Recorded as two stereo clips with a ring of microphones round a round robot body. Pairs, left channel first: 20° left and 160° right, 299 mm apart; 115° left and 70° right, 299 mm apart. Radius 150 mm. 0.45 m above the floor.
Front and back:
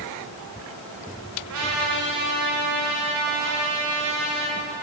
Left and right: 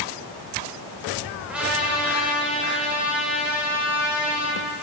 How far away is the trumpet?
About 1.5 m.